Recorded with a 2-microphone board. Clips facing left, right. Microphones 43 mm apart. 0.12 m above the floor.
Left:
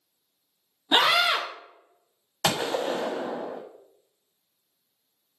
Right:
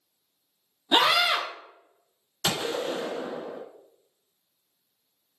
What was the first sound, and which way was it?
A scream, 20° left (ahead or behind).